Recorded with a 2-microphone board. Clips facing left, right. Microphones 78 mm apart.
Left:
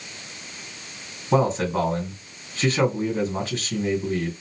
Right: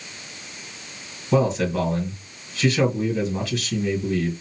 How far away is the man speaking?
About 2.5 m.